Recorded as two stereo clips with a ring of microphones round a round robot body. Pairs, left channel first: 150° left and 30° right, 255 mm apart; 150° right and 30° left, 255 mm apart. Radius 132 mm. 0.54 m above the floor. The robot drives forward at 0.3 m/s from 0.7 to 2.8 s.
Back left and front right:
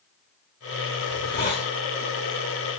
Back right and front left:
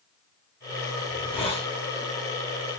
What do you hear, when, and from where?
1.1 s a hiss: 150° left, 0.8 m; by 1.7 s 160° left, 0.9 m